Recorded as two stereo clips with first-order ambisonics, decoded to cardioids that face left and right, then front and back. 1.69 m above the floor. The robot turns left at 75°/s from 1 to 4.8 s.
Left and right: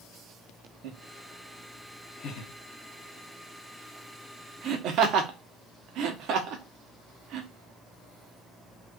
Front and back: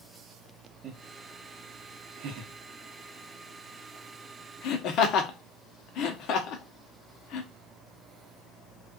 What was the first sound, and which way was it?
Laughter, 120° right.